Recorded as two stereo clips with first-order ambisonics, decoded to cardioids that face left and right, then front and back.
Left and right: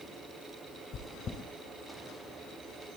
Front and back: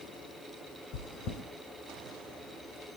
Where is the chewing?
30° left, 1.7 m.